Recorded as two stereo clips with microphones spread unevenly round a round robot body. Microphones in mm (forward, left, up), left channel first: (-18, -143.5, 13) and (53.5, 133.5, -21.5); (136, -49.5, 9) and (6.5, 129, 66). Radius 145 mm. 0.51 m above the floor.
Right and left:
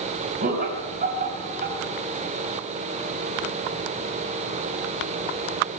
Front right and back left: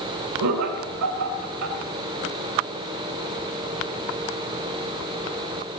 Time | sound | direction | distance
0.4 | laughter | 135° left | 3 m